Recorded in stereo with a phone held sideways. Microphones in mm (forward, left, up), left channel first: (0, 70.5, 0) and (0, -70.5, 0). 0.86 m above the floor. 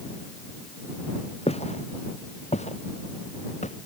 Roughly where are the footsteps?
Left.